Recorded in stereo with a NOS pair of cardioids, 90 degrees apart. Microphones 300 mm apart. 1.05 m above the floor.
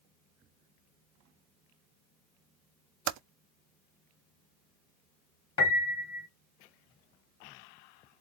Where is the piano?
45° left, 1.5 m.